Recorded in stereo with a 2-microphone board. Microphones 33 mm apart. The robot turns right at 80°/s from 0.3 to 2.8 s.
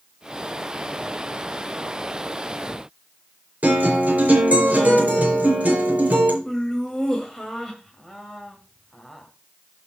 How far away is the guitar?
About 4 m.